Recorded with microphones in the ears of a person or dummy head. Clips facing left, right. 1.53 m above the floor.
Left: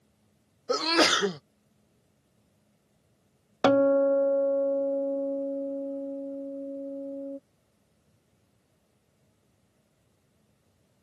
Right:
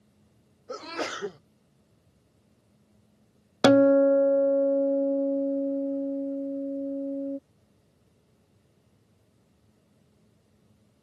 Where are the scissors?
No scissors in this recording.